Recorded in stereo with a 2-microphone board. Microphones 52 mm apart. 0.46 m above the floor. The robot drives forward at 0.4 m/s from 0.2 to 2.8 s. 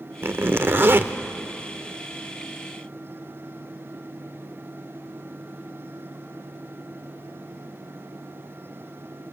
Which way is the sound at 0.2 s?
45° right (ahead or behind).